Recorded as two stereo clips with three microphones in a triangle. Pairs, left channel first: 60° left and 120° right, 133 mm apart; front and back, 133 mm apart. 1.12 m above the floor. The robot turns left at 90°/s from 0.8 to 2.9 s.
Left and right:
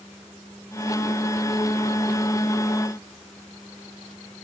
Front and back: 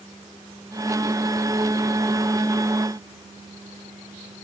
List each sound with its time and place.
Only background noise.